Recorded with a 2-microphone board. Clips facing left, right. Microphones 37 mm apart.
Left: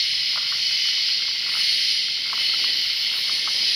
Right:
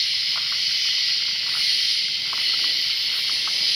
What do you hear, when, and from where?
0.0 s an insect: 75° left (ahead or behind), 3.5 m